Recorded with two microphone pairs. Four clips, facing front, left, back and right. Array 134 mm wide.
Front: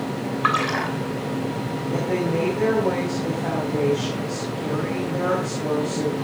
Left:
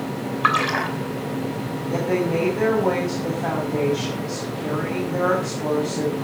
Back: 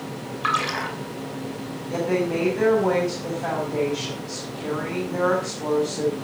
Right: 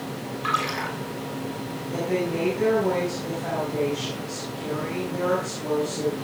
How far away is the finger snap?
No finger snap in this recording.